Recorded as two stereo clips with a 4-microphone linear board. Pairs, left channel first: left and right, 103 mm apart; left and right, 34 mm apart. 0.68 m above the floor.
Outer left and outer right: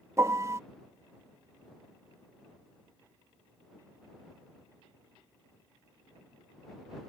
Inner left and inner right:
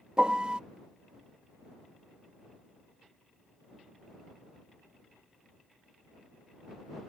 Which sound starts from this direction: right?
A piano, at 0.2 s.